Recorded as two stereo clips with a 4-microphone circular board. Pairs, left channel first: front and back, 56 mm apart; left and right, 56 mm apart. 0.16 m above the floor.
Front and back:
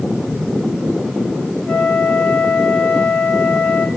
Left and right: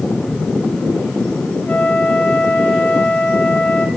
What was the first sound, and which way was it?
A flute, 55° left.